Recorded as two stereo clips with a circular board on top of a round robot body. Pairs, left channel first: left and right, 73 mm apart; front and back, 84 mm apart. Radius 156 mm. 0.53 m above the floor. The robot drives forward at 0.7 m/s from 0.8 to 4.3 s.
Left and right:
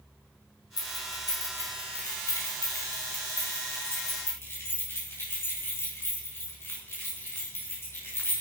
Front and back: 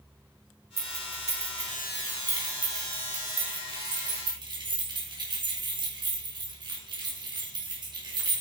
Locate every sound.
0.8 s keys jangling: 120° left, 3 m; by 8.4 s 150° left, 4.5 m